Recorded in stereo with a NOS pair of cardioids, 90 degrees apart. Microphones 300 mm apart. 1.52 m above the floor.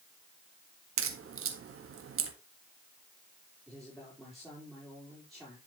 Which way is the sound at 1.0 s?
50° right.